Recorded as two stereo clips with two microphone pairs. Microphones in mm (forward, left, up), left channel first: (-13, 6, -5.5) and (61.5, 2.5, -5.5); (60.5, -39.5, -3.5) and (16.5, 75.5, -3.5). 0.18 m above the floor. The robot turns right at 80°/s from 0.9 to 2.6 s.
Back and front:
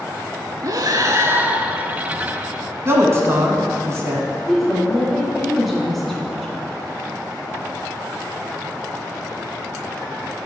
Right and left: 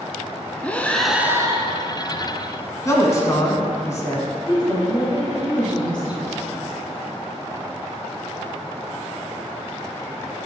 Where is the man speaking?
20° right, 1.2 m.